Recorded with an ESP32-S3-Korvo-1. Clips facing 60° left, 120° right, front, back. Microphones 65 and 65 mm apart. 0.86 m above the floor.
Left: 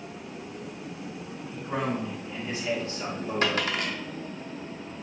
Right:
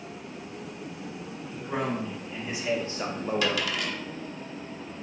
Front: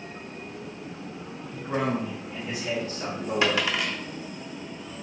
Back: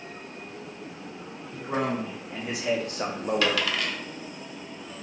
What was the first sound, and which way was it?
A man speaking, 150° left.